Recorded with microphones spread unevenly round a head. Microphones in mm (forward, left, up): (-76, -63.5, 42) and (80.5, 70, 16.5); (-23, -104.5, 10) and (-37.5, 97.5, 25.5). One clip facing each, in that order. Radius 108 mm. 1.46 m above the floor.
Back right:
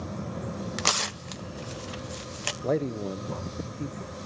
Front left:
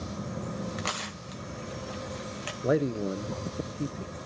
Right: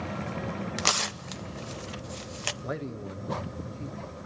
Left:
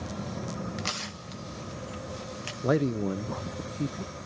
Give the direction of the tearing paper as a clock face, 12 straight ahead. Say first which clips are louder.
Back right 3 dB, right 3 dB; 4 o'clock.